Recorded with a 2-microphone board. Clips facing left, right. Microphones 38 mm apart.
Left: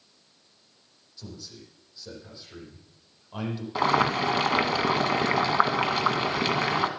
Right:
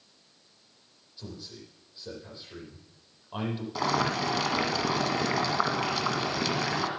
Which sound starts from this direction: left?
Boiling, at 3.8 s.